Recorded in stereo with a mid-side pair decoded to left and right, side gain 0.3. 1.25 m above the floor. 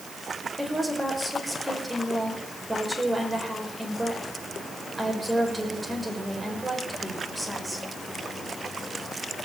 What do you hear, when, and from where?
0.6 s a woman speaking: 15° right, 6 m